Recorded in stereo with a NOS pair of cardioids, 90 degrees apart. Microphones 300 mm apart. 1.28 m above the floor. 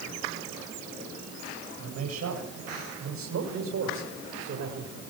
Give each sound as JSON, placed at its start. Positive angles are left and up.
{"t": 1.8, "sound": "a man speaking", "azimuth_deg": -60, "distance_m": 10.0}